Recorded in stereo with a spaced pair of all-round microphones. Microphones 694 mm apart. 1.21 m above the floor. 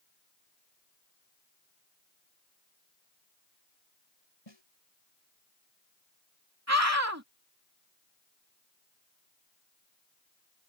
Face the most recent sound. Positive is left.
turn(degrees=-20)  # may be behind; listen again after turning